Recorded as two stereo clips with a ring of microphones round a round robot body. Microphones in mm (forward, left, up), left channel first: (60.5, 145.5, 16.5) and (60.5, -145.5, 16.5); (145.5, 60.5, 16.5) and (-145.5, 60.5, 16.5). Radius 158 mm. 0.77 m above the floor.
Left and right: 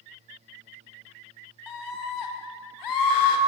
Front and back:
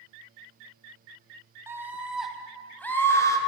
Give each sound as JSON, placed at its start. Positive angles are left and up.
{"t": 1.7, "sound": "a scream", "azimuth_deg": 100, "distance_m": 4.0}